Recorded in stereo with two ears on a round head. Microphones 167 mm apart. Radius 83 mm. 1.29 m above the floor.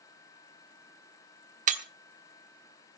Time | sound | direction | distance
1.7 | breaking glass | 40° right (ahead or behind) | 1.2 m